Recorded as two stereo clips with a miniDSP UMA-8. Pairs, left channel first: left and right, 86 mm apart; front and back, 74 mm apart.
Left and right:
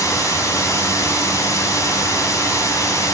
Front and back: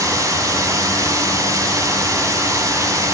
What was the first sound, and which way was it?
Running water, 140° left.